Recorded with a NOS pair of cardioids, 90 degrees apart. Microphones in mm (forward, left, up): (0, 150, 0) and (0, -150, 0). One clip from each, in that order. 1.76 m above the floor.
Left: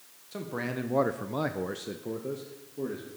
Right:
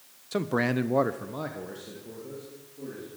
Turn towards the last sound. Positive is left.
turn(degrees=70)